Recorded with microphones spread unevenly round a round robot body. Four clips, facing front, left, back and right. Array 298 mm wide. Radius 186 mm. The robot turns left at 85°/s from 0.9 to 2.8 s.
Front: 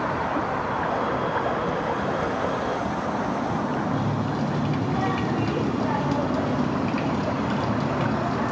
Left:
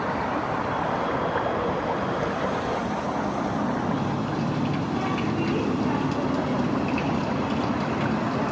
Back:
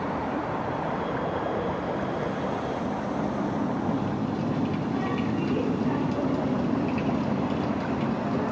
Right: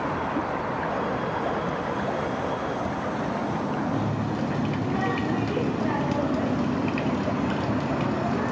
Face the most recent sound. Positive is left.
turn(degrees=-40)